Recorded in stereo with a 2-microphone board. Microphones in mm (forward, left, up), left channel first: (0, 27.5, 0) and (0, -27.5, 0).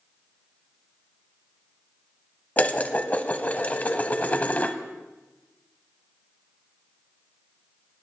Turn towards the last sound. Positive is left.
turn(degrees=30)  # may be behind; listen again after turning